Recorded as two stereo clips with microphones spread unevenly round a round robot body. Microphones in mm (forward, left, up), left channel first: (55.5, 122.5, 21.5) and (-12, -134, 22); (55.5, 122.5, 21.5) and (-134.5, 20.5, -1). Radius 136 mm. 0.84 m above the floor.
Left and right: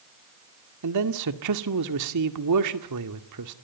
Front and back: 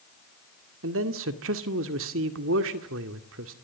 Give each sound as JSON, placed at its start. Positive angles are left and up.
{"t": 0.8, "sound": "a man speaking", "azimuth_deg": -120, "distance_m": 2.0}